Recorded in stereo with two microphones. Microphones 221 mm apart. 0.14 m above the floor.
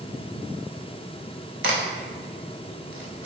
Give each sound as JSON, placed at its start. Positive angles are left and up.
{"t": 1.6, "sound": "a crack", "side_deg": -60, "distance_m": 0.8}